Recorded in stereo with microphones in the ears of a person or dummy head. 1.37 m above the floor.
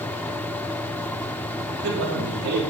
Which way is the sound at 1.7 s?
75° right (ahead or behind).